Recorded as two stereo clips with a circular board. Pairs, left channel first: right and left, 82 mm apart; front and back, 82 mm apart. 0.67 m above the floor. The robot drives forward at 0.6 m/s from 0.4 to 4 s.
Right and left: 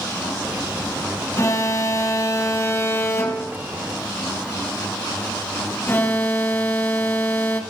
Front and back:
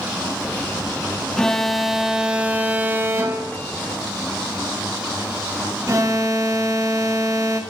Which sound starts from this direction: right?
An alarm, at 1.4 s.